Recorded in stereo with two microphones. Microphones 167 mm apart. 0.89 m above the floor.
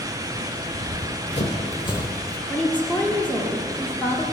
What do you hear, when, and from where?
0.7 s running footsteps: 50° left (ahead or behind), 1.9 m; by 2.4 s 15° left (ahead or behind), 1.2 m
2.5 s a woman speaking: 10° left (ahead or behind), 1.7 m